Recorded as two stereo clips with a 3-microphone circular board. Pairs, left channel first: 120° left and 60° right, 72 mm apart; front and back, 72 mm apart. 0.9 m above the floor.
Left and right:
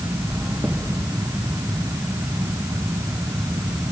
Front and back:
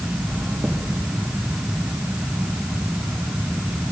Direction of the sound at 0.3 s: 130° right.